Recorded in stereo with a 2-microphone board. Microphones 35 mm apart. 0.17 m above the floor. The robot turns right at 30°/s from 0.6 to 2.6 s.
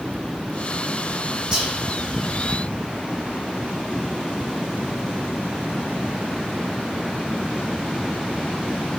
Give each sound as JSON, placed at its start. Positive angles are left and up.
{"t": 1.5, "sound": "whispering", "side_deg": -30, "distance_m": 1.1}